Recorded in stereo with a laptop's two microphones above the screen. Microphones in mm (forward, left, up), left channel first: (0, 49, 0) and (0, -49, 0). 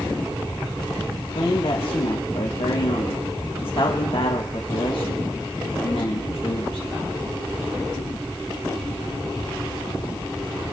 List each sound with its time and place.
1.3 s a man speaking: 65° left (ahead or behind), 1.4 m